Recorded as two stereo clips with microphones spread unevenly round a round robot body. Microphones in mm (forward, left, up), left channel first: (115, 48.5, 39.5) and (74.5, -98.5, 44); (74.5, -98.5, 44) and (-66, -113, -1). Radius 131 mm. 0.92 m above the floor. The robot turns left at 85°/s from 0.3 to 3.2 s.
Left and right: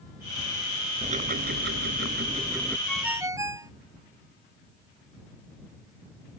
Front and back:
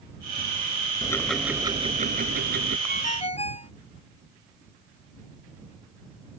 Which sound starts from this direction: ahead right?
Ticking, at 1.0 s.